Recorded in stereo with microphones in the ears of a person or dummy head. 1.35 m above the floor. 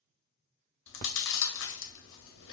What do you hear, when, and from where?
0.9 s chewing: 60° left (ahead or behind), 0.7 m